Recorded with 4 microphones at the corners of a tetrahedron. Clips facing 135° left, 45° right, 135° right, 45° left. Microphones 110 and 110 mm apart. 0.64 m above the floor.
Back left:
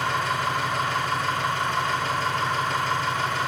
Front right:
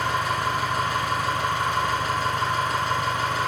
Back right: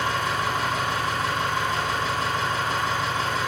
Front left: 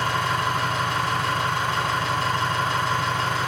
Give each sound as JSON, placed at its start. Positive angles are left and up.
{"t": 0.0, "sound": "an engine running", "azimuth_deg": 35, "distance_m": 4.5}